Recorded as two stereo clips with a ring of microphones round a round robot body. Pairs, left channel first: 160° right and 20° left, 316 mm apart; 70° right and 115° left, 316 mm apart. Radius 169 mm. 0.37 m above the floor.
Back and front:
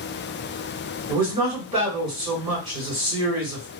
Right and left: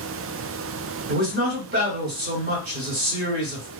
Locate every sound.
1.1 s a man speaking: 90° left, 1.7 m